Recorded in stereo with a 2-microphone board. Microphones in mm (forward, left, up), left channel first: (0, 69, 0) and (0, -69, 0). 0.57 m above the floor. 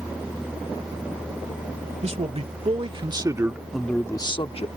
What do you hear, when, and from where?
2.0 s a man speaking: 55° right (ahead or behind); by 4.7 s 50° left (ahead or behind)